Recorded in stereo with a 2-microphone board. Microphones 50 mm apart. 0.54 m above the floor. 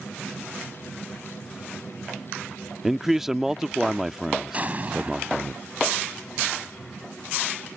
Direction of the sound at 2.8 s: 5° right (ahead or behind).